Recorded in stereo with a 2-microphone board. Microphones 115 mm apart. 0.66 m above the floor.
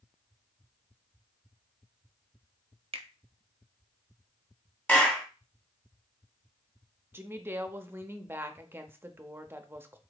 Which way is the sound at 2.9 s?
60° right (ahead or behind).